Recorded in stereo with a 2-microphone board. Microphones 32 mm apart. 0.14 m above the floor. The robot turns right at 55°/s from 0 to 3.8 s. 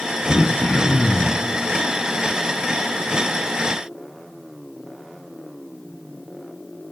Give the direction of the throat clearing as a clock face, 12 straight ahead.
9 o'clock.